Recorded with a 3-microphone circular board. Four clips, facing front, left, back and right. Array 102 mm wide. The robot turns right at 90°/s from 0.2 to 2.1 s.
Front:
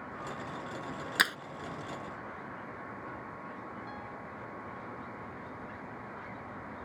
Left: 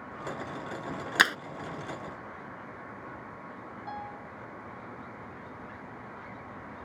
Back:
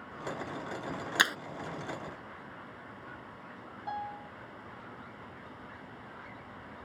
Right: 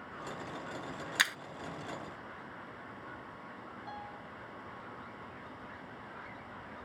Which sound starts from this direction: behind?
A piano, at 3.9 s.